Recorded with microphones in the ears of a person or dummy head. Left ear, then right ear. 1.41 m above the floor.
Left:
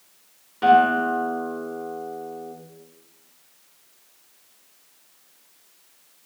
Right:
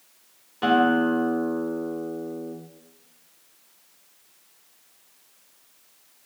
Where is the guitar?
Centre (ahead or behind), 2 m.